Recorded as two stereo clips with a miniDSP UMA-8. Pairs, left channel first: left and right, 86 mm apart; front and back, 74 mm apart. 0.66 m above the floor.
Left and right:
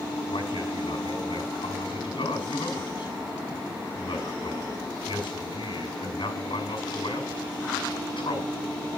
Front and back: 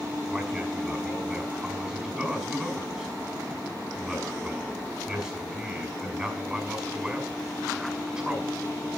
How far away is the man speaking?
About 6 m.